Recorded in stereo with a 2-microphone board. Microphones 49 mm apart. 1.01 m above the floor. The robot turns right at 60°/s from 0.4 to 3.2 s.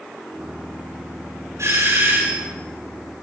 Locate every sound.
1.6 s a doorbell: 90° right, 6 m; by 2.5 s 35° right, 6 m